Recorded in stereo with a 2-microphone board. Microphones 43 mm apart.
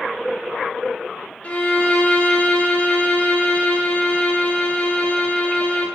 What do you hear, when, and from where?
1.4 s a violin: 35° left (ahead or behind), 2 m